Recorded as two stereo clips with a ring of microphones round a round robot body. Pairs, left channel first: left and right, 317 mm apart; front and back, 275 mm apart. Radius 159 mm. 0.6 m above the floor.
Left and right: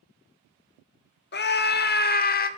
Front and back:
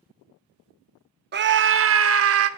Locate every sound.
1.3 s a scream: 140° left, 0.9 m; by 2.5 s 150° left, 1.4 m